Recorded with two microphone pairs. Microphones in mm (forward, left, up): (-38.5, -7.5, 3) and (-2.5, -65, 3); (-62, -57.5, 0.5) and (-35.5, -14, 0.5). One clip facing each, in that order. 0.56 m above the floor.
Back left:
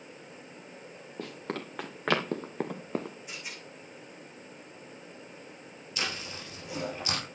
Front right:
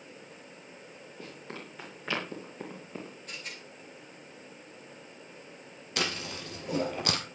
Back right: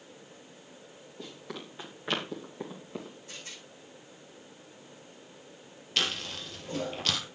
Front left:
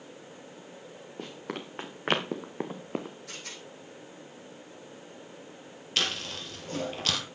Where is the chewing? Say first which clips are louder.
Front right 3 dB, front left 1 dB; 30° right, 4 m.